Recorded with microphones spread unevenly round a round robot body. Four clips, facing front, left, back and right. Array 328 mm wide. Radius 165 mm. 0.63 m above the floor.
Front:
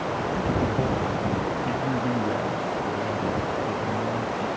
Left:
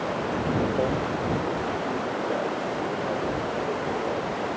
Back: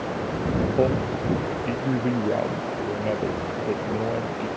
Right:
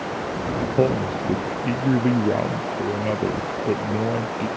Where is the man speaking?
100° right.